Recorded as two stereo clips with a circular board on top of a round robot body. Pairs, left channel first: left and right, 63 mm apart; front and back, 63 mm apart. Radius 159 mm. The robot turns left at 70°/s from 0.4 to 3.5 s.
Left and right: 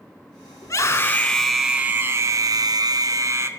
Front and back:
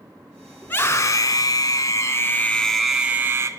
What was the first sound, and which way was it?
A scream, 55° left.